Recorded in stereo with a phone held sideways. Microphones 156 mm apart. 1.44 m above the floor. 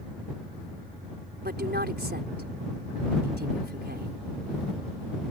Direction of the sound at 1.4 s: 85° right.